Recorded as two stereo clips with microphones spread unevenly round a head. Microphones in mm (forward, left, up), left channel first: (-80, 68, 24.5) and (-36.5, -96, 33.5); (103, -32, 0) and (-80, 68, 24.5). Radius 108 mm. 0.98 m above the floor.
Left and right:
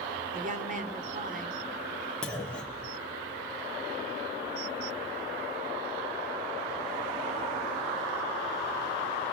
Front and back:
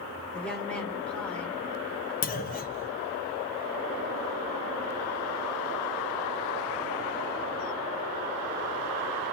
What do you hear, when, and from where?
0.3 s a woman speaking: 115° right, 3 m
2.2 s a clunk: 20° left, 1.2 m